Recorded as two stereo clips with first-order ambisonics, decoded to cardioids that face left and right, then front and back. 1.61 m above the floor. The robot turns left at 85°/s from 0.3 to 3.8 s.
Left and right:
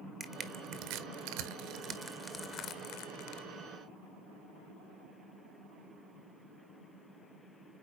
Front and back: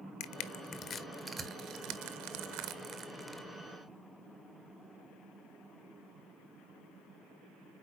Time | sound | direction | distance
0.2 | crushing | 10° right | 0.9 m